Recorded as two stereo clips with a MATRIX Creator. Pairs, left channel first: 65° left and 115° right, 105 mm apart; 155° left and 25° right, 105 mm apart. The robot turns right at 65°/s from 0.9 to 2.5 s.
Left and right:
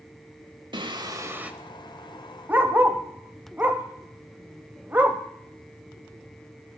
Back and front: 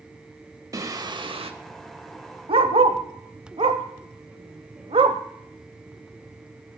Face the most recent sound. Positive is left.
turn(degrees=-40)